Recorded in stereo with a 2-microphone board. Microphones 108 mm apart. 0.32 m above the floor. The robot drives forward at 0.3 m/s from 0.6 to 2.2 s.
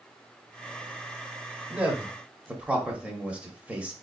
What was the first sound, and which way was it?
A man speaking, 15° right (ahead or behind).